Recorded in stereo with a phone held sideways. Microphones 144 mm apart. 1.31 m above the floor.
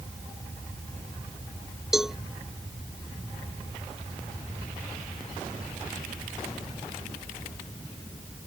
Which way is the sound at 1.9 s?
5° right (ahead or behind).